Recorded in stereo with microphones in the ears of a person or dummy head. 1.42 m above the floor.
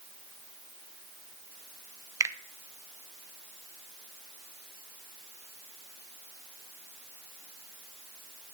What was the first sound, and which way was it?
A finger snap, 15° right (ahead or behind).